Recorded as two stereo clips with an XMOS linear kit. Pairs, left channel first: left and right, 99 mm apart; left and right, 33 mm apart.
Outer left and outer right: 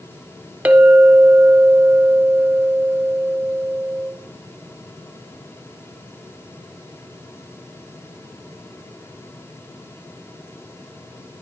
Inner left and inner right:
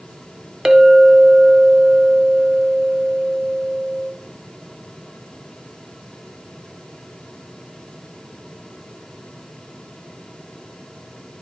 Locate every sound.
0.7 s a clink: 15° right (ahead or behind), 0.6 m